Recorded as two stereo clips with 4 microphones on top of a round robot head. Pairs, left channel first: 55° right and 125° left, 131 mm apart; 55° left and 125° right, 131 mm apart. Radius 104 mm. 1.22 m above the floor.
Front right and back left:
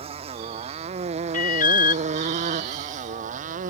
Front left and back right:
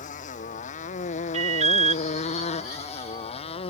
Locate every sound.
0.0 s a motorcycle: 80° left; by 3.7 s 100° left
1.3 s an alarm: 85° right